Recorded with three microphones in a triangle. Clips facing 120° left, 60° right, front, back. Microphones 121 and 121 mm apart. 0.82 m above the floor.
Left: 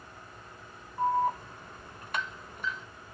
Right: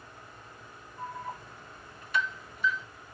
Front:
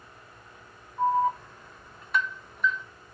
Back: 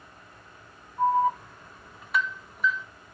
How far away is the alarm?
About 1.0 m.